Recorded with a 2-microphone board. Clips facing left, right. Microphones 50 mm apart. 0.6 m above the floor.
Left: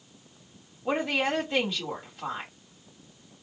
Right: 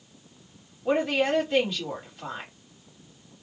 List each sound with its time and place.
0.8 s a woman speaking: centre (ahead or behind), 2.0 m